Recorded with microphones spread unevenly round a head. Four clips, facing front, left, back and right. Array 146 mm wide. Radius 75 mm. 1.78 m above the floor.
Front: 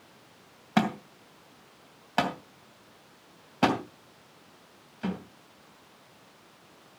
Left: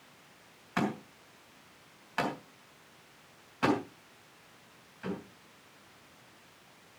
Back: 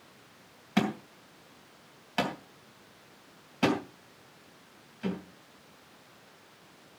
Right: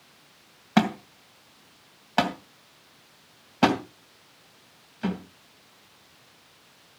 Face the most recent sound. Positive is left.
turn(degrees=-60)